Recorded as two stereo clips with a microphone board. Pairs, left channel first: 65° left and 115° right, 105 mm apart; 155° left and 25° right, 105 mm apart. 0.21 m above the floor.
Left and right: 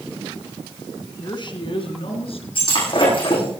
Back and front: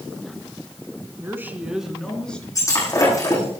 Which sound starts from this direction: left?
Breaking glass, at 2.5 s.